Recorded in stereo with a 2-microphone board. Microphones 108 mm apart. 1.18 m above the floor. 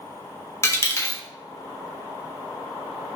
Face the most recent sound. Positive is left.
turn(degrees=25)  # may be behind; listen again after turning